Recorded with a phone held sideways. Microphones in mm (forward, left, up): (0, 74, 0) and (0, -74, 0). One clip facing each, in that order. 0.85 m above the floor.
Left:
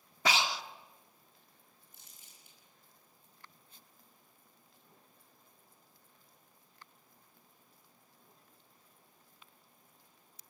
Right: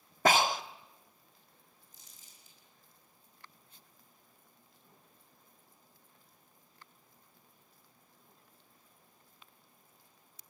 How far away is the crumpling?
About 6 m.